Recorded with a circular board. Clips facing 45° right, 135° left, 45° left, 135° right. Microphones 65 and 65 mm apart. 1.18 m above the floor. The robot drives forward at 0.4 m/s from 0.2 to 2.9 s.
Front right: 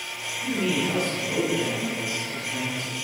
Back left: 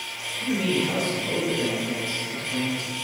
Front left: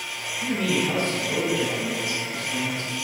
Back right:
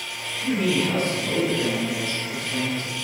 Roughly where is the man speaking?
Behind left.